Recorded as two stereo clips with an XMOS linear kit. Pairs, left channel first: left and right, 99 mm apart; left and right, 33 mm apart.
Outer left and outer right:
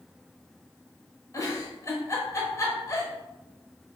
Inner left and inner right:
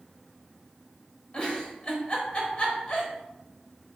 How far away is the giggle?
About 0.9 m.